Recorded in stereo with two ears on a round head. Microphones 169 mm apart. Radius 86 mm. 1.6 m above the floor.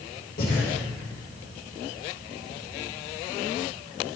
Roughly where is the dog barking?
I don't hear a dog barking.